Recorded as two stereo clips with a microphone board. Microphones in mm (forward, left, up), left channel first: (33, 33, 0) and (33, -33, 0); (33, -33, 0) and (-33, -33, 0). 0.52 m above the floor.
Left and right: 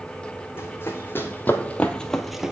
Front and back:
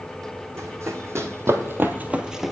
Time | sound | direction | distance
0.6 | running footsteps | 140° left | 1.3 m